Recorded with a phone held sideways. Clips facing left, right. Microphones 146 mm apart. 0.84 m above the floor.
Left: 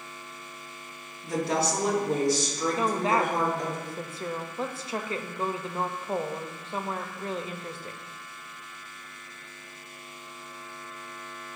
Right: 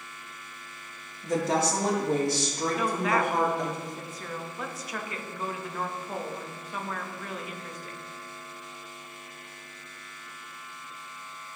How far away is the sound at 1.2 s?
About 2.0 m.